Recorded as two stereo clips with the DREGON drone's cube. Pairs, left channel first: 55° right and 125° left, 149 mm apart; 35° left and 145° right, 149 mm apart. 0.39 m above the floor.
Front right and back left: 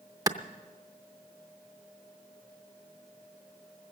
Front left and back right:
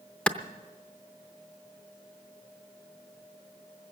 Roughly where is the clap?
Left.